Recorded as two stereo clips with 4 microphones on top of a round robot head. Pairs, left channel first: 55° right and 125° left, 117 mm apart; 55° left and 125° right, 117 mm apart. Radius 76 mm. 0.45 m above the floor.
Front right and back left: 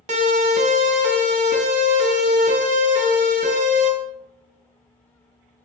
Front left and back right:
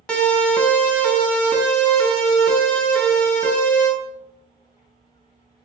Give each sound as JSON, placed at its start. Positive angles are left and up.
{"t": 0.1, "sound": "a siren", "azimuth_deg": 135, "distance_m": 4.5}